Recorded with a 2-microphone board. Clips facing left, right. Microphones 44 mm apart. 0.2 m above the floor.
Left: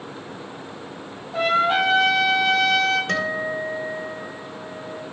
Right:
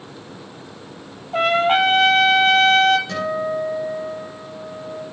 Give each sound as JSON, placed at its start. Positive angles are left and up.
{"t": 1.3, "sound": "a trumpet", "side_deg": -45, "distance_m": 1.0}
{"t": 3.1, "sound": "a guitar", "side_deg": 60, "distance_m": 2.5}